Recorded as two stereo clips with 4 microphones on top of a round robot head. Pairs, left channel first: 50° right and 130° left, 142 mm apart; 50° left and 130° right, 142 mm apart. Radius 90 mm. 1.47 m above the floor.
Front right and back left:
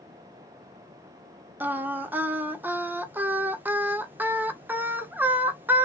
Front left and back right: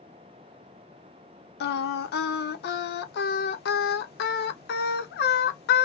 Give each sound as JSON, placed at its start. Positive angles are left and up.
{"t": 1.6, "sound": "singing", "azimuth_deg": 50, "distance_m": 0.7}